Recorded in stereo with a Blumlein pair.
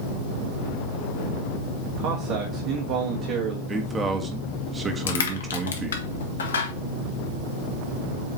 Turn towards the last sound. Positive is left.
turn(degrees=65)